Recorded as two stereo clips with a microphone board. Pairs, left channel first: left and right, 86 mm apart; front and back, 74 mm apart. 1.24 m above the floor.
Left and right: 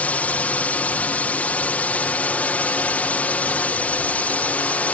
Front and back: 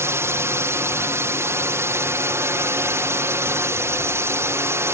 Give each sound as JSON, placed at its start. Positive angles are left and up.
{"t": 0.0, "sound": "a drone", "azimuth_deg": 155}